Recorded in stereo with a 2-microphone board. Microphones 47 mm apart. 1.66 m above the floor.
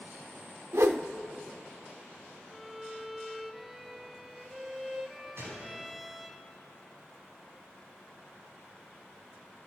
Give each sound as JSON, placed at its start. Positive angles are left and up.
{"t": 0.7, "sound": "a whoosh", "side_deg": -70, "distance_m": 0.5}
{"t": 2.5, "sound": "a violin", "side_deg": -5, "distance_m": 0.6}
{"t": 5.4, "sound": "a gunshot", "side_deg": -70, "distance_m": 5.0}